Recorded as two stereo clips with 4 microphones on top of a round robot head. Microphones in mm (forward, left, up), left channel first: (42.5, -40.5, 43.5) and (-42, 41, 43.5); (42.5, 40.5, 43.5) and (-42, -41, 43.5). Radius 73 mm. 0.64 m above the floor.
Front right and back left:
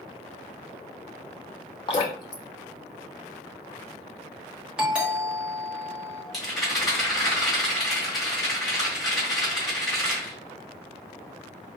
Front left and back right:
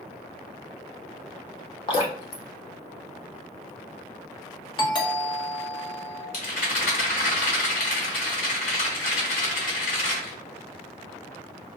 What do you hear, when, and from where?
1.9 s dripping: straight ahead, 0.8 m
4.8 s a doorbell: 60° left, 1.4 m
6.3 s a rattle: 45° left, 1.9 m